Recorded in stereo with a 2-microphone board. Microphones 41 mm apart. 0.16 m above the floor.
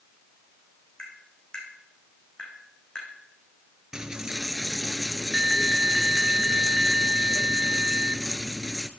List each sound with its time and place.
1.0 s tapping: 25° left (ahead or behind), 5.5 m
3.9 s a dropped coin: 20° right (ahead or behind), 0.9 m